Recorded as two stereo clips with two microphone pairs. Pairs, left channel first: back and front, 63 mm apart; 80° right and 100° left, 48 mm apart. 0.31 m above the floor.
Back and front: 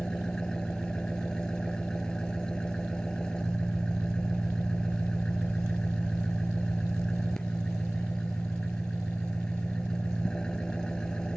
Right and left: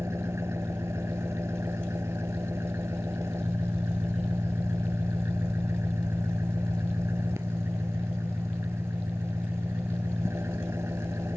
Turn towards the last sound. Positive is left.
turn(degrees=100)